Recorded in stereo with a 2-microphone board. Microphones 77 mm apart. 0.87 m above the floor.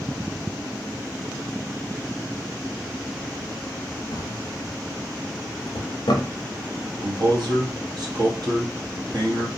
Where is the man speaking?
60° right (ahead or behind), 1.0 m.